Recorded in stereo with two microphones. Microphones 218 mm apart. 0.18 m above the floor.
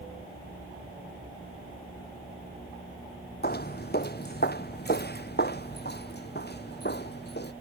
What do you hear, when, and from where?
3.4 s footsteps: 45° left (ahead or behind); by 7.5 s 50° left (ahead or behind)